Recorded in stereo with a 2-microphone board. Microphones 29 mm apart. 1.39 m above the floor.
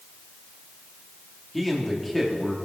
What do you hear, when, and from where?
1.5 s a man speaking: centre (ahead or behind), 2.5 m